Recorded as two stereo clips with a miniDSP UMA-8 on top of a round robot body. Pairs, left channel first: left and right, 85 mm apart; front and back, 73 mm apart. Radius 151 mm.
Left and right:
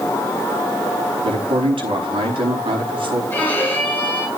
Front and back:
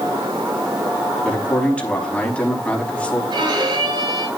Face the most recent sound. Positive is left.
turn(degrees=160)